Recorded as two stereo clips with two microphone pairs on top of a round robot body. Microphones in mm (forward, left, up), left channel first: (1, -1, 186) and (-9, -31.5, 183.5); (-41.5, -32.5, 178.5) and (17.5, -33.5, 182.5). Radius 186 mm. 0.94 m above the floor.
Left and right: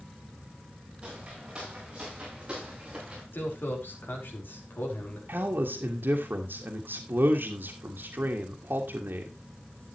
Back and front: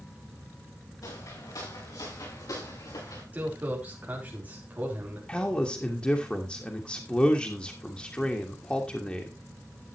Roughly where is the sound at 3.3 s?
Ahead left.